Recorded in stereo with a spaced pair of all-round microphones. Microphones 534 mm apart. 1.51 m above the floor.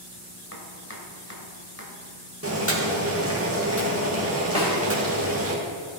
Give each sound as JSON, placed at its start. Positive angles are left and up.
{"t": 0.5, "sound": "chopping", "side_deg": 25, "distance_m": 1.9}
{"t": 2.4, "sound": "boiling", "side_deg": -25, "distance_m": 2.0}
{"t": 4.5, "sound": "a snare drum", "side_deg": 65, "distance_m": 3.5}